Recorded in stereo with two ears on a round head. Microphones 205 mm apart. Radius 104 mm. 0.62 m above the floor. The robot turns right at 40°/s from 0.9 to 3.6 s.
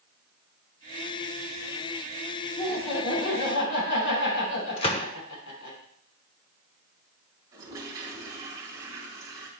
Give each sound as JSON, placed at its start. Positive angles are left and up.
{"t": 2.6, "sound": "laughter", "azimuth_deg": 15, "distance_m": 5.5}
{"t": 4.8, "sound": "a gunshot", "side_deg": 25, "distance_m": 0.8}
{"t": 7.5, "sound": "a toilet flushing", "side_deg": -15, "distance_m": 4.0}